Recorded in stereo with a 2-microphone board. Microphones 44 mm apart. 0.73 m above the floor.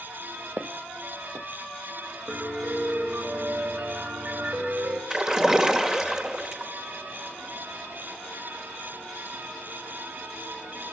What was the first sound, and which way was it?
Footsteps, 55° right (ahead or behind).